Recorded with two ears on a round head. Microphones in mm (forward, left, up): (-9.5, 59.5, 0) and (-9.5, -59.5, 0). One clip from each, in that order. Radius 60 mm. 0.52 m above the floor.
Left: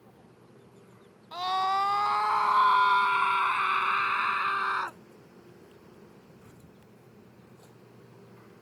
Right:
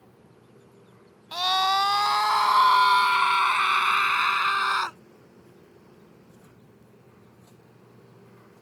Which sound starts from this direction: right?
A scream, at 1.3 s.